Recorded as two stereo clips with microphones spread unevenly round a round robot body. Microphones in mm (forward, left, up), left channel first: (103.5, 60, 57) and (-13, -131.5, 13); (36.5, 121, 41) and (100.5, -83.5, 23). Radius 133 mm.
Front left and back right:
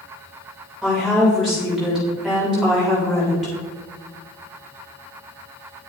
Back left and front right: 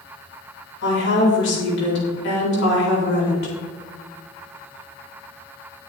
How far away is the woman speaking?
About 3.5 m.